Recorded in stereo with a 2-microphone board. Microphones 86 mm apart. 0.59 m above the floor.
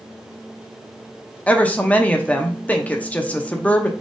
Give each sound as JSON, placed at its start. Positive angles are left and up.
{"t": 1.5, "sound": "a woman speaking", "side_deg": 15, "distance_m": 0.6}